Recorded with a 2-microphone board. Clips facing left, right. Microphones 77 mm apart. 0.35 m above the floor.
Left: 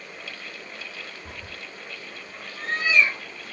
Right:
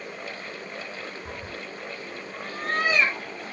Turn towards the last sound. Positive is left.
turn(degrees=-75)  # may be behind; listen again after turning